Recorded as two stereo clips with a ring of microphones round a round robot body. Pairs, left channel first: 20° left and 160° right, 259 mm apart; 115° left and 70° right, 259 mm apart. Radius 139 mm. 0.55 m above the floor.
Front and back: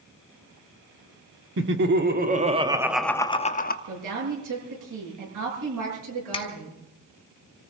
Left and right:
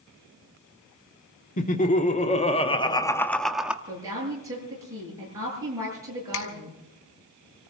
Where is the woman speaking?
145° right, 8.5 m.